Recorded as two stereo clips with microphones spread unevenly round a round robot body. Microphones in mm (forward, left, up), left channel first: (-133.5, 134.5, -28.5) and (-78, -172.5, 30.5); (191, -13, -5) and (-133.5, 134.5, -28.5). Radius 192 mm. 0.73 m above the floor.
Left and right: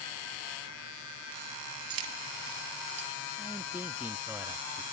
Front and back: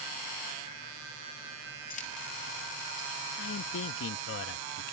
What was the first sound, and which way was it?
Keys jangling, 95° right.